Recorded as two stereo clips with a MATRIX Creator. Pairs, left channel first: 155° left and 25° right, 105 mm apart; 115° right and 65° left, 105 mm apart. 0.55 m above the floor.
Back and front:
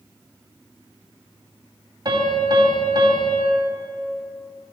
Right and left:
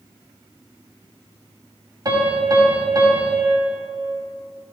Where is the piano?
20° left, 2.5 m.